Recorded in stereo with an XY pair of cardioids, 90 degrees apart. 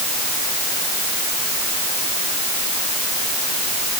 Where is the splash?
No splash in this recording.